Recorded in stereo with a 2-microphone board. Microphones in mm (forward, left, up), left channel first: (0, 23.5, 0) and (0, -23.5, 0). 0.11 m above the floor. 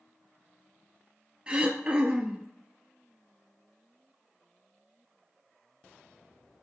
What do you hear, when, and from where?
1.5 s throat clearing: 20° right (ahead or behind), 0.6 m